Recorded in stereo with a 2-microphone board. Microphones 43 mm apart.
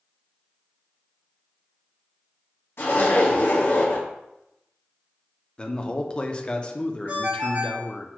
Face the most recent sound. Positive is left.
turn(degrees=-50)  # may be behind; listen again after turning